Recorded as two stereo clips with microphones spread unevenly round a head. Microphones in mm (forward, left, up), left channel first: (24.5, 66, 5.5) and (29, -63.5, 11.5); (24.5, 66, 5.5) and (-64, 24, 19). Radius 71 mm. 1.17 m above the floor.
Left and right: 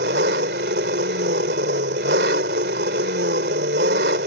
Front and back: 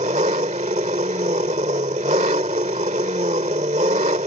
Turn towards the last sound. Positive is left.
turn(degrees=-110)